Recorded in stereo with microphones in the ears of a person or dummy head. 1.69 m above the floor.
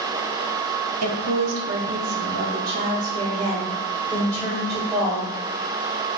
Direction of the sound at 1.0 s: 90° right.